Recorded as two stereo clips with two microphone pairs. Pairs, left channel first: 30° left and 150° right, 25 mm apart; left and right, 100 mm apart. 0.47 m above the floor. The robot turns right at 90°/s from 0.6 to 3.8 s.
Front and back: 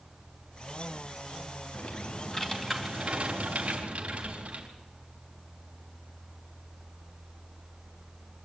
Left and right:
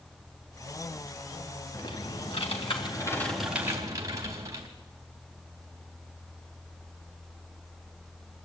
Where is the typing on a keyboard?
30° left, 3.5 m; by 4.7 s 145° right, 3.5 m.